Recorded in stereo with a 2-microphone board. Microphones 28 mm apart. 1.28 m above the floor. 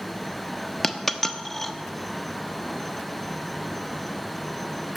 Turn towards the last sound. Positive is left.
turn(degrees=10)  # may be behind; listen again after turning